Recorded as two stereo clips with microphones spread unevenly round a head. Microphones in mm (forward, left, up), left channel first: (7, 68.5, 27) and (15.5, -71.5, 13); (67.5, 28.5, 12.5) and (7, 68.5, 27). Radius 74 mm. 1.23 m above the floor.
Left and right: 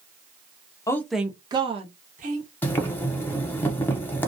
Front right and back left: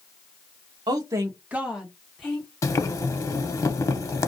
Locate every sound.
0.9 s a woman speaking: 160° left, 0.6 m; by 2.5 s 110° right, 1.1 m
2.6 s boiling: 15° left, 0.7 m